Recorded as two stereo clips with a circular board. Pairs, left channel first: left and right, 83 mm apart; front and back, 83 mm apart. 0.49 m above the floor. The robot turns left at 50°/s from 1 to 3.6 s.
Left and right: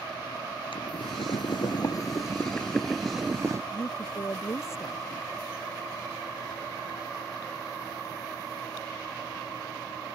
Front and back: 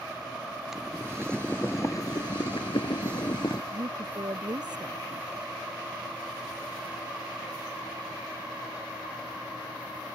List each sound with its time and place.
0.7 s boiling: 95° left; by 3.6 s 35° right
3.7 s a woman speaking: 145° left